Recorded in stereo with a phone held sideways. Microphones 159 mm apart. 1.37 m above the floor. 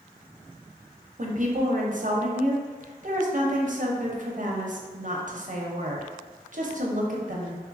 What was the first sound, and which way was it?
A woman speaking, 55° right (ahead or behind).